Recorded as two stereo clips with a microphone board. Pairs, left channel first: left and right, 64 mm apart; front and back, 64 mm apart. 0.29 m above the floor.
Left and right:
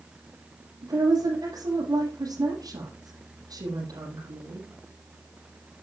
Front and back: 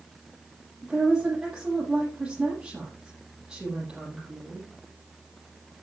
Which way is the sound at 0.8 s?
100° right.